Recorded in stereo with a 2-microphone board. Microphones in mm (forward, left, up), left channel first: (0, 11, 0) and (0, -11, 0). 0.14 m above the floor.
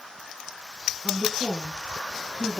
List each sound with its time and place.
1.0 s a woman speaking: 30° right (ahead or behind), 1.4 m; by 2.6 s 50° right (ahead or behind), 2 m